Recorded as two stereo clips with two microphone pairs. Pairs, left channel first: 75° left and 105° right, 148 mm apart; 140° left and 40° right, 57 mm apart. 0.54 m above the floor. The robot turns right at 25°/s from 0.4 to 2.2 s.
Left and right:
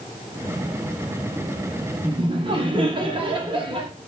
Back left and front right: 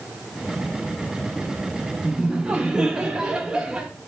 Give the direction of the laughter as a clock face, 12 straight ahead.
4 o'clock.